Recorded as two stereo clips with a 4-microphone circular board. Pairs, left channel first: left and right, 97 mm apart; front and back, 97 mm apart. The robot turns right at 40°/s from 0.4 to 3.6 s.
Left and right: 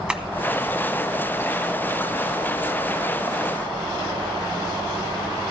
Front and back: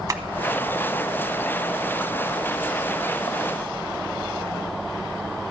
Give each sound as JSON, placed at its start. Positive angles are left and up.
{"t": 0.1, "sound": "tapping", "azimuth_deg": -165, "distance_m": 0.7}